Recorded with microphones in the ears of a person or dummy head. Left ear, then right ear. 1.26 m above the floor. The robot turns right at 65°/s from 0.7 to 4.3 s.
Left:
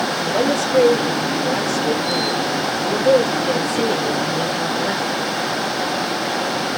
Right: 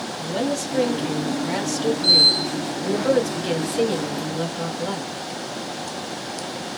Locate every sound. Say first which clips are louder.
0.2 s a woman speaking: left 4 dB; 160° left, 1.2 m; by 5.1 s 30° left, 1.2 m